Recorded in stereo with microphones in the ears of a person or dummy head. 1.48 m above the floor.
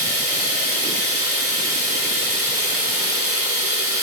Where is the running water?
40° right (ahead or behind), 1.3 m.